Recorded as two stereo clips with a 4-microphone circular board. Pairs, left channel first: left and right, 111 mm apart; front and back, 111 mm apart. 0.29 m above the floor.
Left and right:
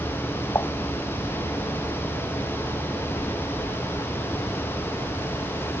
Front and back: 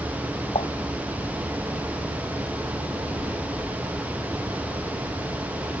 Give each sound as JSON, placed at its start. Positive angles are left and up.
{"t": 0.6, "sound": "dishes clattering", "azimuth_deg": 25}